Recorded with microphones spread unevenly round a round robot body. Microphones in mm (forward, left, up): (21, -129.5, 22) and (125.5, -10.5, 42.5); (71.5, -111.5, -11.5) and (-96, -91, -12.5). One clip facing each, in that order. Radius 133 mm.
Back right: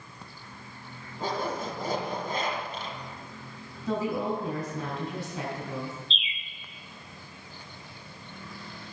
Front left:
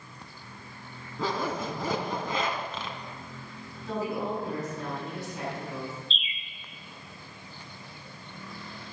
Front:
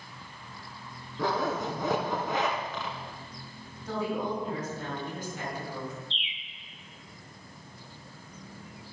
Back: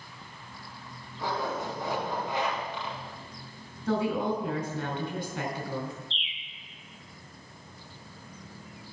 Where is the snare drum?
I don't hear a snare drum.